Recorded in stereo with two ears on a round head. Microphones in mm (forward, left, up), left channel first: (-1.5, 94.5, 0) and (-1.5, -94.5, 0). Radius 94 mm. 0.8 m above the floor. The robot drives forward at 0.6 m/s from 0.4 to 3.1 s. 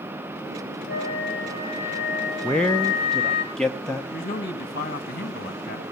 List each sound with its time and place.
0.9 s a flute: 45° left (ahead or behind), 2.5 m; by 3.4 s 30° left (ahead or behind), 3.5 m
2.4 s a man speaking: 5° left (ahead or behind), 0.5 m
4.1 s a man speaking: 40° left (ahead or behind), 1.4 m